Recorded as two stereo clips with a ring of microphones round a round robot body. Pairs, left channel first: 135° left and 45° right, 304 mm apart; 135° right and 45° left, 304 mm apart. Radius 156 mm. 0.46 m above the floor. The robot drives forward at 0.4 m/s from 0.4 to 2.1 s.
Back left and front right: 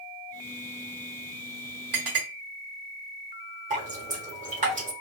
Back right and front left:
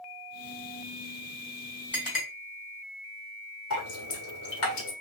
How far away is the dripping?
About 1.4 m.